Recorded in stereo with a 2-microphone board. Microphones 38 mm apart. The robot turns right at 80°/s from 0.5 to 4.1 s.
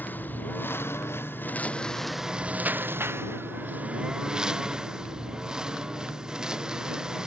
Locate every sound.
0.0 s a lawn mower: 50° left (ahead or behind); by 7.3 s 15° right (ahead or behind)